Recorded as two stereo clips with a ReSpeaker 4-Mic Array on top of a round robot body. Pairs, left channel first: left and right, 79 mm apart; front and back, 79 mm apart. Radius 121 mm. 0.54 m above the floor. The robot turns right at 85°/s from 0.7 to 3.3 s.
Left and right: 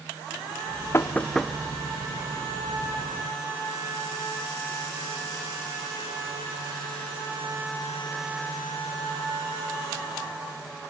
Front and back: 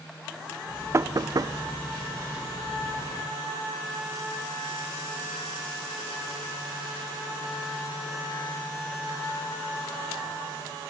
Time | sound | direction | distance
0.9 | knocking | 135° left | 0.6 m